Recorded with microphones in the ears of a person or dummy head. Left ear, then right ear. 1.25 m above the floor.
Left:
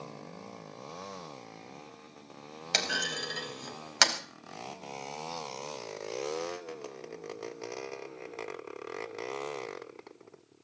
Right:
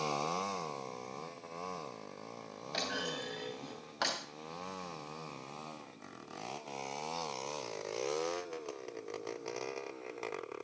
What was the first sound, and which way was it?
A clunk, 80° left.